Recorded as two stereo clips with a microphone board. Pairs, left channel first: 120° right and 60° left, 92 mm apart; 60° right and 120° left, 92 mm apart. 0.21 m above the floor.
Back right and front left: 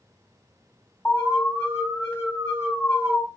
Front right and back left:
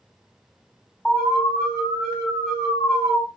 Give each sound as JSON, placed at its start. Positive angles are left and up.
{"t": 1.1, "sound": "an alarm", "azimuth_deg": -115, "distance_m": 2.0}